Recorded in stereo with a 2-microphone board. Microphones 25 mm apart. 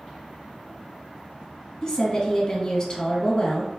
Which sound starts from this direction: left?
A woman speaking, at 1.8 s.